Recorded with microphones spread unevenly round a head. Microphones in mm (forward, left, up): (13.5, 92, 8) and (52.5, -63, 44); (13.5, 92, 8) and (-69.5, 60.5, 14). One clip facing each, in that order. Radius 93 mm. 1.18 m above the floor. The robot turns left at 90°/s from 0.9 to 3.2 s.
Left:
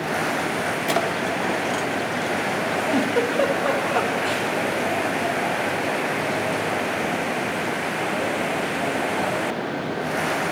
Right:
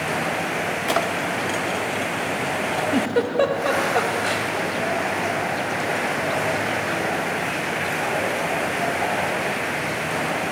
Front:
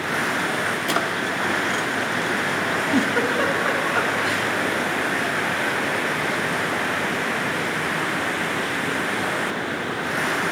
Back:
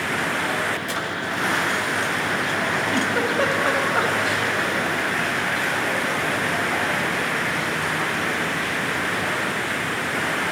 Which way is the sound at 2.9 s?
65° right.